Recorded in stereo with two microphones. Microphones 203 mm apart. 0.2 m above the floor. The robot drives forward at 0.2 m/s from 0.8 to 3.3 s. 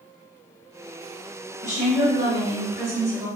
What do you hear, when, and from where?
1.6 s a woman speaking: 35° right (ahead or behind), 1.9 m; by 3.3 s 30° right (ahead or behind), 2 m